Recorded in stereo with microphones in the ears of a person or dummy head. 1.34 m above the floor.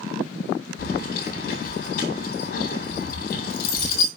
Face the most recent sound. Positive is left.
turn(degrees=55)  # may be behind; listen again after turning